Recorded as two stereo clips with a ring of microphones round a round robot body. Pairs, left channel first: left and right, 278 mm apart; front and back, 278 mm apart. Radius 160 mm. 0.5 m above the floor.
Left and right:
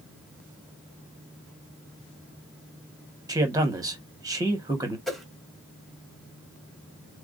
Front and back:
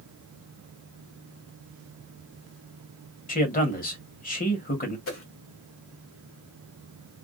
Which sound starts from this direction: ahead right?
A man speaking, at 3.3 s.